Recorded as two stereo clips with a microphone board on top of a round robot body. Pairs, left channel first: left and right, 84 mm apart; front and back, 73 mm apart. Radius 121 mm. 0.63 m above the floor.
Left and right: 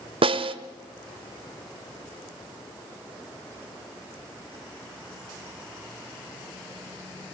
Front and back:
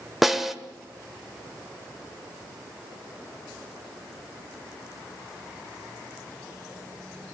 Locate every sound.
0.2 s a snare drum: 90° right, 1.6 m